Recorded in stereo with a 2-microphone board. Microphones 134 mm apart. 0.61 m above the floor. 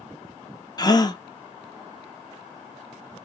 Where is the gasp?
30° left (ahead or behind), 0.8 m.